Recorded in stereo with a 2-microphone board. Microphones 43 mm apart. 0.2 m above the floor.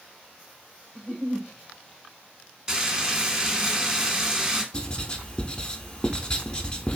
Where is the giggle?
35° left (ahead or behind), 1.7 m.